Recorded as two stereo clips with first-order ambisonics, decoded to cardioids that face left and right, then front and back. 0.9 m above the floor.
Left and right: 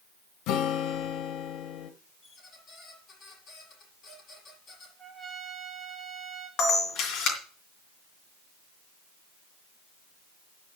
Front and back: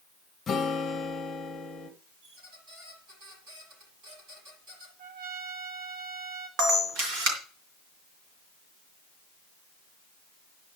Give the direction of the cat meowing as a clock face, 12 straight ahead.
I don't hear a cat meowing.